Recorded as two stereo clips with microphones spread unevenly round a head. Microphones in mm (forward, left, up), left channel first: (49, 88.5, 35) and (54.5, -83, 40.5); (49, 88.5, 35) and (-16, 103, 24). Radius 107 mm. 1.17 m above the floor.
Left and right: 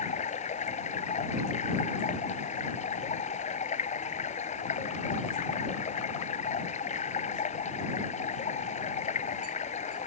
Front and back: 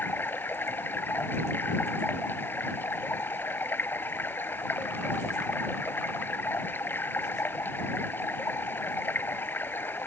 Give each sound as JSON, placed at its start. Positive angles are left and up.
{"t": 0.0, "sound": "running water", "azimuth_deg": 45}